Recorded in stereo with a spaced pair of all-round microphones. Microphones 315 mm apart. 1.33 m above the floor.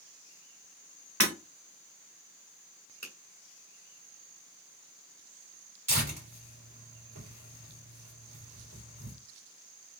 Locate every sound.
1.2 s breaking glass: 55° right (ahead or behind), 3.5 m
3.0 s a finger snap: 55° left (ahead or behind), 1.7 m
5.9 s tearing paper: 80° right, 3 m